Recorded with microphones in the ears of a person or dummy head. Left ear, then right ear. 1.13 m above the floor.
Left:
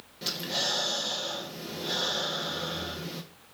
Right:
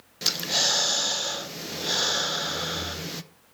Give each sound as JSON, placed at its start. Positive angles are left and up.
{"t": 0.2, "sound": "breathing", "side_deg": -40, "distance_m": 0.6}